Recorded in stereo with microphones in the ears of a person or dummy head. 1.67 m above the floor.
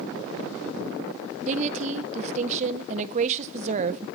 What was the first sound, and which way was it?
A woman speaking, 40° right (ahead or behind).